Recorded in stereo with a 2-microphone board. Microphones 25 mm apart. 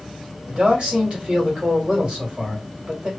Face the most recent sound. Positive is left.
turn(degrees=-40)  # may be behind; listen again after turning